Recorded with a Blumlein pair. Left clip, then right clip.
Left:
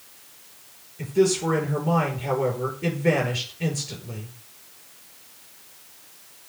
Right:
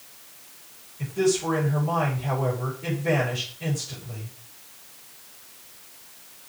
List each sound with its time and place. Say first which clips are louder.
1.0 s a man speaking: left 2 dB; 65° left, 5 m